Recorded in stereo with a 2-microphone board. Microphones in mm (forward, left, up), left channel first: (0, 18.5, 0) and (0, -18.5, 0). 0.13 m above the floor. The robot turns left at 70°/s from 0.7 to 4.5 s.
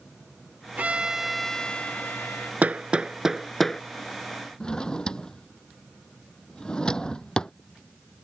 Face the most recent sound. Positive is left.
turn(degrees=20)  # may be behind; listen again after turning